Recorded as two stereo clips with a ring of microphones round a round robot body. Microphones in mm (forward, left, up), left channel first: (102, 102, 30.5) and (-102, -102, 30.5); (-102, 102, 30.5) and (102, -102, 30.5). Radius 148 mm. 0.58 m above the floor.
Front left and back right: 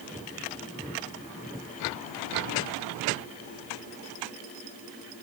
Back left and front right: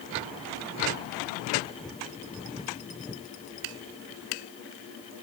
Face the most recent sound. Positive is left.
No sound to turn to.